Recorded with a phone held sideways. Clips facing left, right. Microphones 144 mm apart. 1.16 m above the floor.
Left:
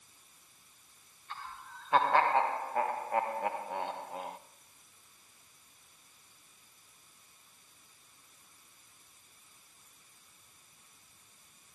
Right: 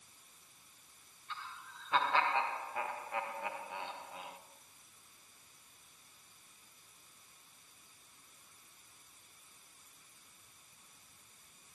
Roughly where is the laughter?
Left.